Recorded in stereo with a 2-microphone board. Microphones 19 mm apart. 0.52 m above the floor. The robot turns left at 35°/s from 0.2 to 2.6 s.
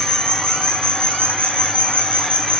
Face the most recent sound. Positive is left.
turn(degrees=50)